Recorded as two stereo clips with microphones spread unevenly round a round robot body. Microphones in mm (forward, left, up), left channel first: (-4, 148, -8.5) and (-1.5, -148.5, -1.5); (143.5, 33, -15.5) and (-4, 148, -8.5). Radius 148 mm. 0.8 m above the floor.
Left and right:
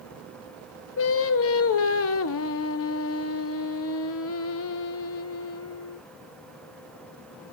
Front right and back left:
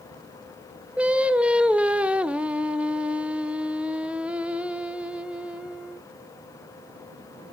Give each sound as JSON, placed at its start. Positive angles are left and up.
{"t": 1.0, "sound": "singing", "azimuth_deg": 55, "distance_m": 0.5}